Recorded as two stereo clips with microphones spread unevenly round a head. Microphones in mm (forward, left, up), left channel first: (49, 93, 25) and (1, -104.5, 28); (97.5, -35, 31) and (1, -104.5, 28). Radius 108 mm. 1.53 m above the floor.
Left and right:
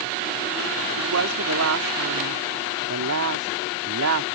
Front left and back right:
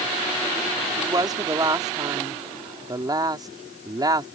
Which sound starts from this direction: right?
A woman speaking, at 1.0 s.